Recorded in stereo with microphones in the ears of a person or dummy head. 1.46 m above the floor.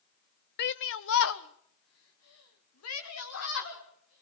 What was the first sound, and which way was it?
A shout, 50° left (ahead or behind).